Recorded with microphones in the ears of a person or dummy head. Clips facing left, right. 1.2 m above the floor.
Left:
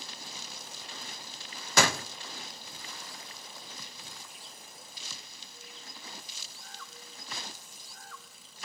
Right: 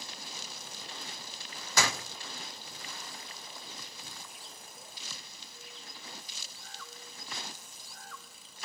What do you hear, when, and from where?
1.8 s a door slam: 45° left (ahead or behind), 0.7 m